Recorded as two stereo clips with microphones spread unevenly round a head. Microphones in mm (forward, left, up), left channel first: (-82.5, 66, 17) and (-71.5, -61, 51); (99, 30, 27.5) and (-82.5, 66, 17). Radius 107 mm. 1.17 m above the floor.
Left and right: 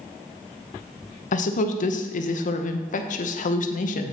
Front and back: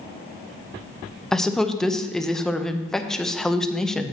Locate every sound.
1.3 s a woman speaking: 75° left, 0.7 m